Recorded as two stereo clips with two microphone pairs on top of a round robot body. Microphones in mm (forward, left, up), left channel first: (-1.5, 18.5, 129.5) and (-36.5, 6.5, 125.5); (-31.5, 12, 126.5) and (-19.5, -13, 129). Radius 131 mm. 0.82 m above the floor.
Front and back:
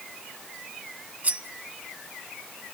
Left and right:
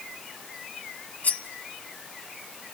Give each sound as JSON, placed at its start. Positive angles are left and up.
{"t": 1.2, "sound": "cutlery clinking", "azimuth_deg": 145, "distance_m": 1.1}